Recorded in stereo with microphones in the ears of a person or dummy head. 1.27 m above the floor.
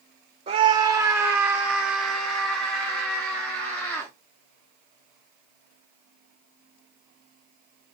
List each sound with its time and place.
0.5 s a scream: 30° right (ahead or behind), 1.1 m; by 4.1 s 10° left (ahead or behind), 3.5 m